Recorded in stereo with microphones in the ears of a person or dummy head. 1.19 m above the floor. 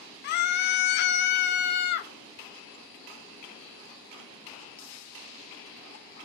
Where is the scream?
55° left (ahead or behind), 1.1 m.